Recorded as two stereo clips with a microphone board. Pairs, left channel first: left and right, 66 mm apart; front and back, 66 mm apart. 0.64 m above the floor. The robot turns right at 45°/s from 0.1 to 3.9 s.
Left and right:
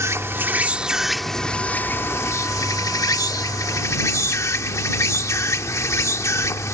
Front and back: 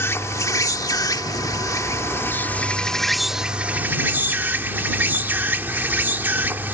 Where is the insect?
50° right; by 6.7 s 125° left.